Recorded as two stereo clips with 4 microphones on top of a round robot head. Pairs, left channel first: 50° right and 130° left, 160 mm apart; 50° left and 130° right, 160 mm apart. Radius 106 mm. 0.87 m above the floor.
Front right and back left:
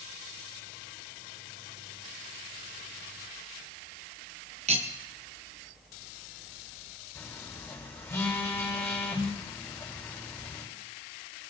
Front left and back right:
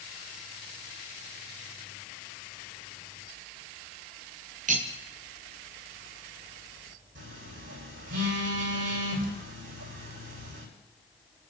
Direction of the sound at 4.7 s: 175° right.